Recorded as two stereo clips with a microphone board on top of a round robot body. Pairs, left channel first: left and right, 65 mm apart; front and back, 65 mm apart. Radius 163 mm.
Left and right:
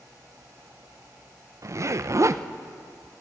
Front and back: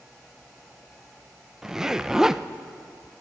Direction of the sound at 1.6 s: 100° right.